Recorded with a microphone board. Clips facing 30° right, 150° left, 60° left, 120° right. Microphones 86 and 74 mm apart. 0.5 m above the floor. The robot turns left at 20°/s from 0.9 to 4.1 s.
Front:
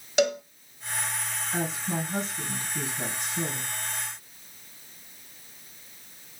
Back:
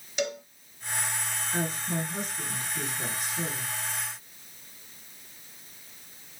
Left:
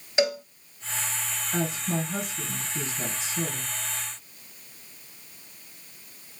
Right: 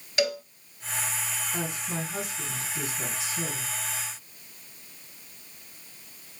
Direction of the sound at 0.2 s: 5° right.